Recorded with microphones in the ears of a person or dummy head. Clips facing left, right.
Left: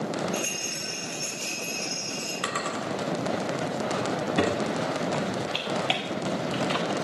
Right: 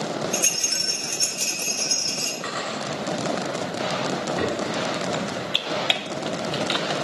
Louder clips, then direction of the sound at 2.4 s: Right 1 dB; 50° left (ahead or behind).